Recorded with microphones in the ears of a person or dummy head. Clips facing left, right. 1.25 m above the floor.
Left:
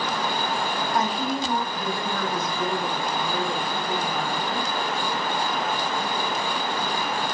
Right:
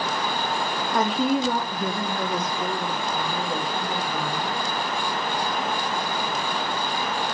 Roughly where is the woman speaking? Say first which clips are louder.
Right 6 dB; right.